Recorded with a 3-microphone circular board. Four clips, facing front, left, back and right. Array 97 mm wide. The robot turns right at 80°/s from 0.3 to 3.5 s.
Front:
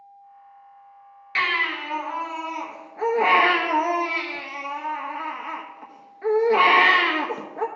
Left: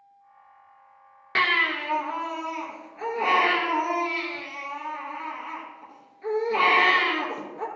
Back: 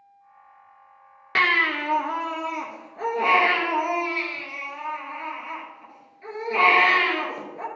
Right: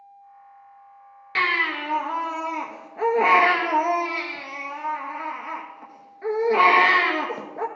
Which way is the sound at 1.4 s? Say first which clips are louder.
Even, back 3 dB; 150° left.